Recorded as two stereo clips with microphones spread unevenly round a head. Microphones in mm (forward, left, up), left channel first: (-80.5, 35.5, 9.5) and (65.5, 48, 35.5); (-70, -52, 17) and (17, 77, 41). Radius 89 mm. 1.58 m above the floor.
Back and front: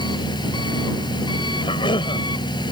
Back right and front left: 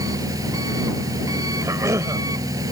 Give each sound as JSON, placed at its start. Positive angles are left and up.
{"t": 0.0, "sound": "an engine running", "azimuth_deg": 125}
{"t": 1.6, "sound": "a cough", "azimuth_deg": 125}